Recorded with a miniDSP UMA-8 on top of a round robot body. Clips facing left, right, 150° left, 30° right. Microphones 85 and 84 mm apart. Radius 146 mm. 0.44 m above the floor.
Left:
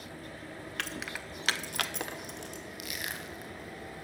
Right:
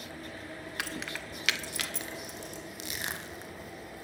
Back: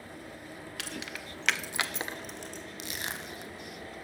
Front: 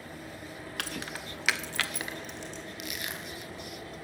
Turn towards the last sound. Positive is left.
turn(degrees=-150)